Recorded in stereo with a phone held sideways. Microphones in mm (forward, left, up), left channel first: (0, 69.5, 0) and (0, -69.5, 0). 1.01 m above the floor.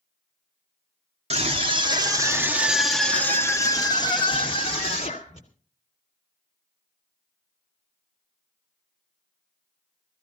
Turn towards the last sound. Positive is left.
turn(degrees=50)  # may be behind; listen again after turning